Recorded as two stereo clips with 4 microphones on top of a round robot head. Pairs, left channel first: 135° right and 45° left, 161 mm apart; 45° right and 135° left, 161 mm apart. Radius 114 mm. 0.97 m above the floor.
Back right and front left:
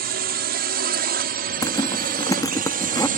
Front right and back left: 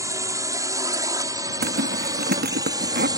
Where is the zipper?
155° left.